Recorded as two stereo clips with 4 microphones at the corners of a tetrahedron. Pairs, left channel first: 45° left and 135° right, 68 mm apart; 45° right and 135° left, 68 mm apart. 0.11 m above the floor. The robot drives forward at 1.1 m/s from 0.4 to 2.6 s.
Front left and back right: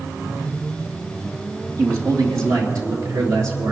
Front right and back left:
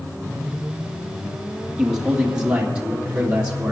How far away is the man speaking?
About 2.5 m.